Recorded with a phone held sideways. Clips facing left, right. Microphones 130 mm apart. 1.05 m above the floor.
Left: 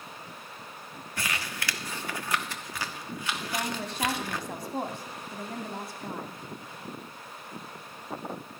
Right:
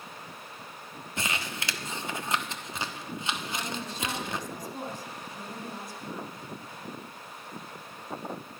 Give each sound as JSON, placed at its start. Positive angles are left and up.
{"t": 1.2, "sound": "crumpling", "side_deg": -25, "distance_m": 1.1}
{"t": 3.4, "sound": "a woman speaking", "side_deg": 70, "distance_m": 2.5}